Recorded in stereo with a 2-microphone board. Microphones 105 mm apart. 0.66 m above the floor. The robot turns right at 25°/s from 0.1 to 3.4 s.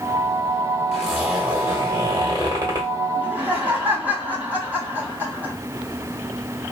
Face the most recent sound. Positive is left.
turn(degrees=-15)  # may be behind; listen again after turning